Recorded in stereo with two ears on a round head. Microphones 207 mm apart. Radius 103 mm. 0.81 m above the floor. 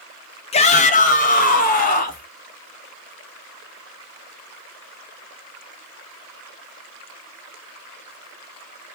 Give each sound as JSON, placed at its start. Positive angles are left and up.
{"t": 0.5, "sound": "a shout", "side_deg": 25, "distance_m": 0.6}